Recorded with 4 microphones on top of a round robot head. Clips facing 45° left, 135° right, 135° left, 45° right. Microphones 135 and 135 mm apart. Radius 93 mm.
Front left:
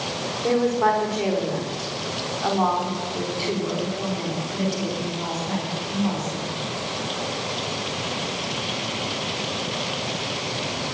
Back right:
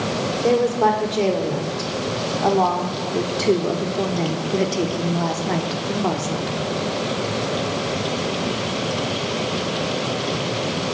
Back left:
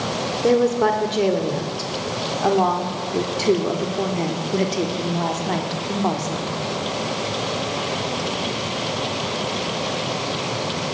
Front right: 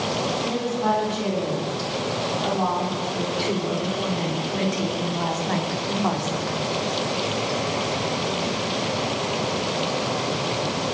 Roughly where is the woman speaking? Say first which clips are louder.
Back right 2 dB, back left 10 dB; behind.